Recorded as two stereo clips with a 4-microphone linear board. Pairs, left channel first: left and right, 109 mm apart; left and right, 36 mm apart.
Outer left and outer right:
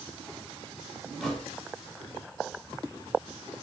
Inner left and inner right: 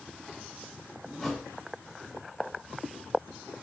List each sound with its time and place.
1.2 s a thud: centre (ahead or behind), 3 m